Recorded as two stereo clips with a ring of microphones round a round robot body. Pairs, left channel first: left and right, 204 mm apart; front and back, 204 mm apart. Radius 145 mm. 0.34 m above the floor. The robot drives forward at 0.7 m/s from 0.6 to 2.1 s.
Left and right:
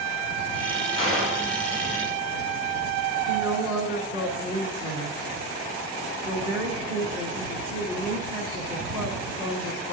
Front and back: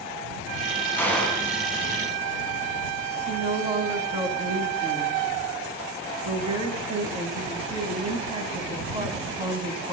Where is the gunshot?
80° left, 3.5 m; by 1.5 s 85° left, 3.5 m.